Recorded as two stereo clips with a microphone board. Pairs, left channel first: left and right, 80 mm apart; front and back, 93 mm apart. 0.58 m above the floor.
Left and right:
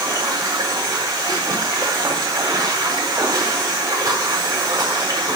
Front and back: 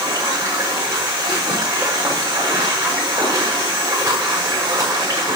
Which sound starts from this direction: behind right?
Running water, at 0.0 s.